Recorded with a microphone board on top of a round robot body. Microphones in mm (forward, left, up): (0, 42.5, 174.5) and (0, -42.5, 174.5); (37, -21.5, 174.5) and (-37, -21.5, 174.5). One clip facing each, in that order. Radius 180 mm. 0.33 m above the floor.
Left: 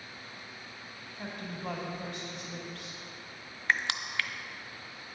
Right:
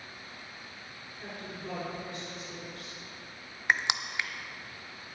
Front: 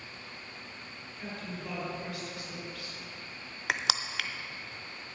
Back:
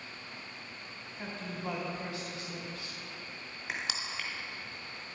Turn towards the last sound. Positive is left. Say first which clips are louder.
# right 1 dB, front 6 dB
turn(degrees=-15)